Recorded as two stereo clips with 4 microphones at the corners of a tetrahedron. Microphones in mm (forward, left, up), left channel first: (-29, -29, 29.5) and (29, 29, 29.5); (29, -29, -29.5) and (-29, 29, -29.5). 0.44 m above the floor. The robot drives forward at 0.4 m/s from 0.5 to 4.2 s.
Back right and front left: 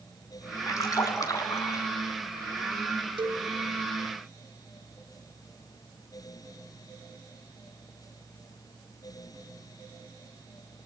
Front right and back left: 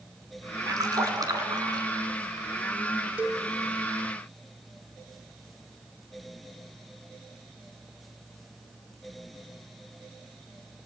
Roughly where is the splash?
Behind.